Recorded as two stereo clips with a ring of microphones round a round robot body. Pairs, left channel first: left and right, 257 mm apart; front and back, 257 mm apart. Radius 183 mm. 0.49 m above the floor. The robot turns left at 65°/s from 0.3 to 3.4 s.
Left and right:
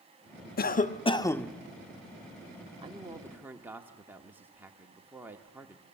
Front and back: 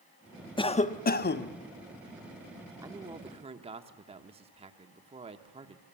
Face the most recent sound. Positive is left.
turn(degrees=-160)